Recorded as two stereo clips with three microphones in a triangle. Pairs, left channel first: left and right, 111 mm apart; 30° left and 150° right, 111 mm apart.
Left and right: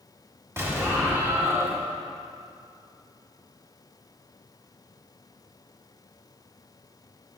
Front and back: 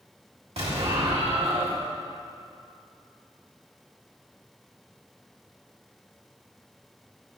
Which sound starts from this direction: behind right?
An explosion, at 0.6 s.